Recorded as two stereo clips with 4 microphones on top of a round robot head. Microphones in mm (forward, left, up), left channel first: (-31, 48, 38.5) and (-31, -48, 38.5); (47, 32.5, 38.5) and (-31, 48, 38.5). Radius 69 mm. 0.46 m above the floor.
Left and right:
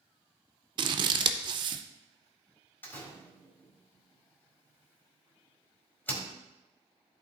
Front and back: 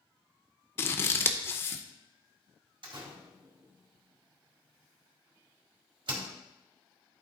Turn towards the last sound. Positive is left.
turn(degrees=160)